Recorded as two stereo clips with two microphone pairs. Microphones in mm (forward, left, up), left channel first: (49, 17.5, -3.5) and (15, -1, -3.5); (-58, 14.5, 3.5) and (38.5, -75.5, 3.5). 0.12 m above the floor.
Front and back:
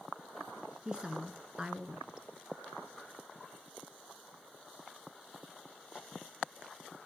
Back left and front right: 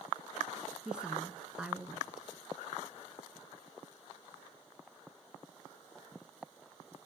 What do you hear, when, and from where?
0.8 s a woman speaking: 115° right, 1.1 m